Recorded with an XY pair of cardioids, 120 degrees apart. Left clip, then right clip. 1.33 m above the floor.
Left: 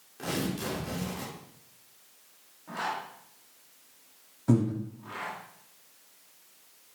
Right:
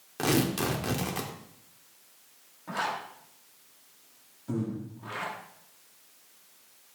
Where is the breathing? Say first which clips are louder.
Left 7 dB; 70° left, 2.5 m.